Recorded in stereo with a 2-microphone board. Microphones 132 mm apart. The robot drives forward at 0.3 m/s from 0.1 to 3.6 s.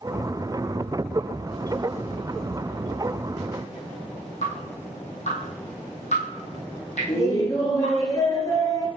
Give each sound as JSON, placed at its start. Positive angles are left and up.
{"t": 4.4, "sound": "dripping", "side_deg": 60, "distance_m": 3.0}
{"t": 7.1, "sound": "laughter", "side_deg": 25, "distance_m": 1.8}